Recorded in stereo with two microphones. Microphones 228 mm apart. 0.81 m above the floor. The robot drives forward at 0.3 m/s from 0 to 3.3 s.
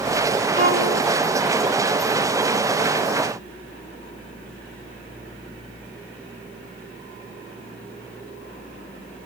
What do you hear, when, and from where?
0.6 s a violin: 65° right (ahead or behind), 2.5 m